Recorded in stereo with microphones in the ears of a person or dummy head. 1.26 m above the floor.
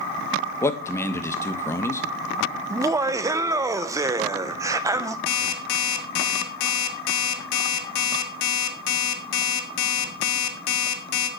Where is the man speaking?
10° left (ahead or behind), 1.4 m.